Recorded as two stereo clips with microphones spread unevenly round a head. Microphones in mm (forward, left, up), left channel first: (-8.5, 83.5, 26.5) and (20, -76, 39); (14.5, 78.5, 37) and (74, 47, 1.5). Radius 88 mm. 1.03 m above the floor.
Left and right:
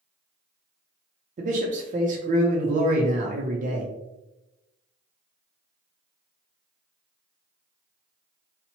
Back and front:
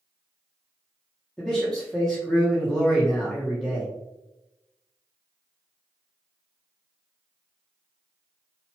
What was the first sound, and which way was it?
A man speaking, 90° right.